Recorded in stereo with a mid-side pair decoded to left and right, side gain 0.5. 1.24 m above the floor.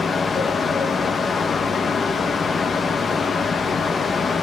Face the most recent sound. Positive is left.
turn(degrees=35)